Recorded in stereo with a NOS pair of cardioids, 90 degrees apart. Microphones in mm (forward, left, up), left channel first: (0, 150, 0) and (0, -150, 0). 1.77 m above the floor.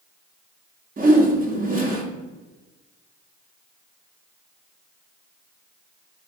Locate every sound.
1.0 s a whoosh: 30° right, 0.7 m